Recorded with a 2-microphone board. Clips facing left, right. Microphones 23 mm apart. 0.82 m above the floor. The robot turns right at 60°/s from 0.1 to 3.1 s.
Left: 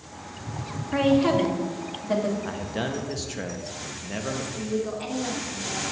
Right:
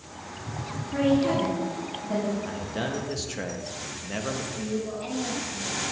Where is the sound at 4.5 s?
35° left (ahead or behind), 2.5 m.